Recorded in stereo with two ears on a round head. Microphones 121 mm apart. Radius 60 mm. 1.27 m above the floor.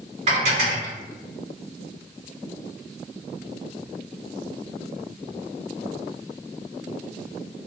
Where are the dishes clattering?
50° right (ahead or behind), 1.9 m.